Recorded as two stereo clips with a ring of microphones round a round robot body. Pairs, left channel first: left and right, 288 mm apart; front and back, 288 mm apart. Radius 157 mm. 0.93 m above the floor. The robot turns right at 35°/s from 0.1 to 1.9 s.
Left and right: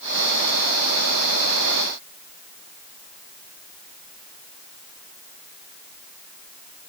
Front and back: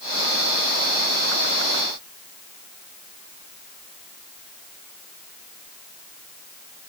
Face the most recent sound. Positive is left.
No sound to turn to.